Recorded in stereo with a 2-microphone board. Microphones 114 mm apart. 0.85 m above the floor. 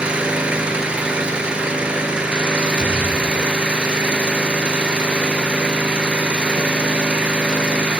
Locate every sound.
0.0 s an engine running: 10° right (ahead or behind), 3.5 m
2.8 s a thud: 15° left (ahead or behind), 7.5 m